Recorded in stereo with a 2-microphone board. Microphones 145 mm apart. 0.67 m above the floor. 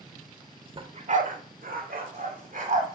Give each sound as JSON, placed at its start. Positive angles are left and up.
{"t": 0.8, "sound": "a dog barking", "side_deg": -35, "distance_m": 0.9}